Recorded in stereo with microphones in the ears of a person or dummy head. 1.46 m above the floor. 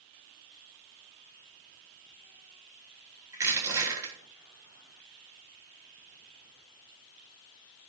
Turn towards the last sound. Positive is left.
turn(degrees=-15)  # may be behind; listen again after turning